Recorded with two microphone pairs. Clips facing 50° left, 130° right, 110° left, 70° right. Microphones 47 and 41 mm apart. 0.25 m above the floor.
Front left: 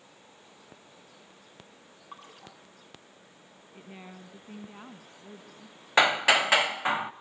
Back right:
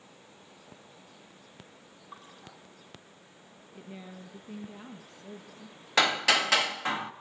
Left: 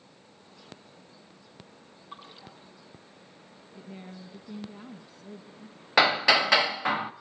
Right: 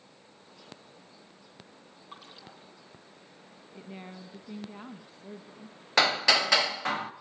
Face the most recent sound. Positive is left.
turn(degrees=65)